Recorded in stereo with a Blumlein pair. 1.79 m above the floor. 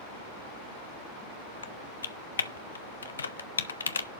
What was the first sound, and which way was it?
Typing on a keyboard, 70° left.